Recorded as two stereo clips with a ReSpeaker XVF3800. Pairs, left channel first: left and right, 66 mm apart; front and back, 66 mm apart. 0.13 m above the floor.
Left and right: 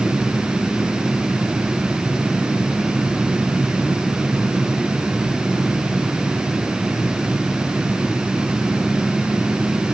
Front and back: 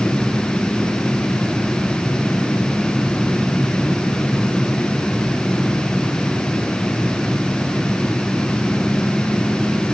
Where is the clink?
I don't hear a clink.